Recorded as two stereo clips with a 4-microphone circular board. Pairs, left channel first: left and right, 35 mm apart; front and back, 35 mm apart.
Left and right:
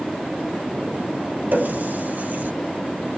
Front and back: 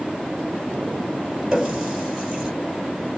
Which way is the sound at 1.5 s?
100° right.